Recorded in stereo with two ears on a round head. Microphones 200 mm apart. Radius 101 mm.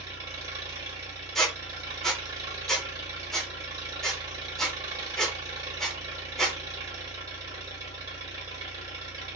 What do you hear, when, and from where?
0.0 s an engine running: 15° right (ahead or behind), 1.4 m
1.4 s a squeak: centre (ahead or behind), 0.6 m